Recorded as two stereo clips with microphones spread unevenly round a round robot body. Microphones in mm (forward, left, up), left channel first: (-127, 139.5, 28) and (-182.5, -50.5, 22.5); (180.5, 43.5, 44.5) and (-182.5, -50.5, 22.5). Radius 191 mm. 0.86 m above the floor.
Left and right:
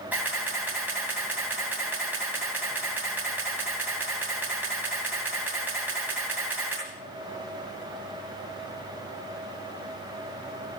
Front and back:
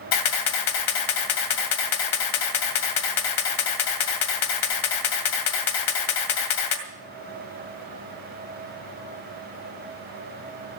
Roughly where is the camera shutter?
Ahead.